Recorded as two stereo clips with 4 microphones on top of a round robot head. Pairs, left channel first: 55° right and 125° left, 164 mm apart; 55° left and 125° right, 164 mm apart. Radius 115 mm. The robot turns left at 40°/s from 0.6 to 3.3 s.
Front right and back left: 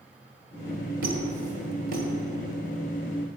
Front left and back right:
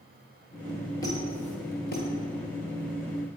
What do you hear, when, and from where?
1.0 s a squeak: 125° left, 1.7 m; by 2.1 s 80° left, 1.7 m